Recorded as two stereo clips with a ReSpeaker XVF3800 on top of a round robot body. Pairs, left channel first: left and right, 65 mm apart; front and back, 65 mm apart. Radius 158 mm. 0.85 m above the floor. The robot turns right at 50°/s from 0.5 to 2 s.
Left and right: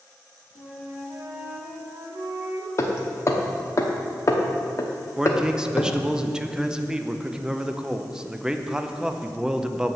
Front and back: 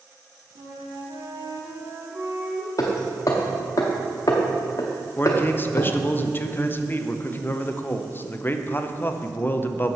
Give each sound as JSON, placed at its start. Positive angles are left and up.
{"t": 0.6, "sound": "a flute", "azimuth_deg": 165, "distance_m": 1.4}
{"t": 2.8, "sound": "hammering", "azimuth_deg": 45, "distance_m": 0.8}
{"t": 5.2, "sound": "a man speaking", "azimuth_deg": -20, "distance_m": 0.8}